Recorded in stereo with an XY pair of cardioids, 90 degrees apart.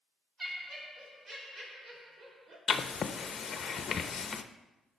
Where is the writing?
45° left, 0.8 m.